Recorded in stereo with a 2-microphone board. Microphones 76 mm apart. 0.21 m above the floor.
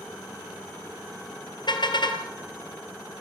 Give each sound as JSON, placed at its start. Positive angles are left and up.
{"t": 1.7, "sound": "a car horn", "side_deg": 75, "distance_m": 2.5}